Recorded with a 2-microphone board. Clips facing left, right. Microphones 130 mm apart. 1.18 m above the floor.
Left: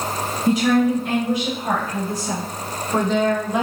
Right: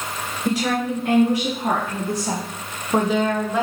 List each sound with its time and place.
0.5 s a woman speaking: 75° right (ahead or behind), 1.6 m; by 3.6 s 20° left (ahead or behind), 0.6 m